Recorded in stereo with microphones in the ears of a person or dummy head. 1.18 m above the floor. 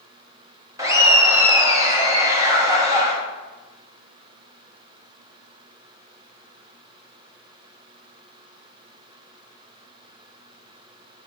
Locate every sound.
0.8 s laughter: 15° right (ahead or behind), 1.2 m